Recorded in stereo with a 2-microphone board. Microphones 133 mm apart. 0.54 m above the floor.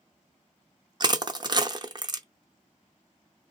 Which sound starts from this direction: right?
Crushing, at 1.0 s.